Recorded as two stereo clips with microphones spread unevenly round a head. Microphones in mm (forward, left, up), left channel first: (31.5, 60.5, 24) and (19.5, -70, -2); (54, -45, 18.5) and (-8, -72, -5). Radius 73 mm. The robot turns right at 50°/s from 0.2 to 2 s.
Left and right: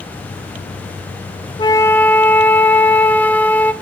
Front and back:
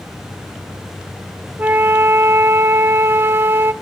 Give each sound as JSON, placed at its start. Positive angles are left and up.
{"t": 1.6, "sound": "a flute", "azimuth_deg": 150, "distance_m": 0.7}